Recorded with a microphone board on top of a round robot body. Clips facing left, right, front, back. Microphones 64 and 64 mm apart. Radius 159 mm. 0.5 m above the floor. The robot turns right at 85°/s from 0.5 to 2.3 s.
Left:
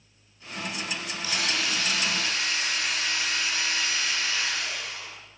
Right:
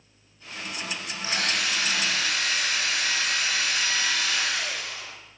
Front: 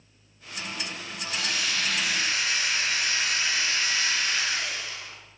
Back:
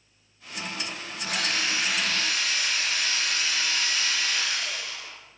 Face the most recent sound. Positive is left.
turn(degrees=-65)